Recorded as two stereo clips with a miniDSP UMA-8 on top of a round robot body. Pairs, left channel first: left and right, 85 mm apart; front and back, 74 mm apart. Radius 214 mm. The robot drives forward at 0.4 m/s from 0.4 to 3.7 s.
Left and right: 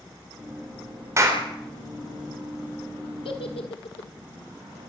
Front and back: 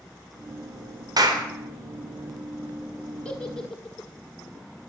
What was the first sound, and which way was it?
A clap, 145° right.